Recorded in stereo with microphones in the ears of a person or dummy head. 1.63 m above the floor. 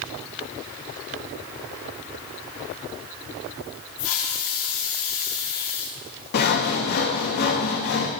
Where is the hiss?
80° left, 3 m.